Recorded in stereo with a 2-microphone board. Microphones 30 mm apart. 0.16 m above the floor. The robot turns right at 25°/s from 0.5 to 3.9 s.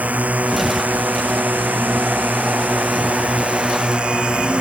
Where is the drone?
120° right; by 4.6 s 35° right.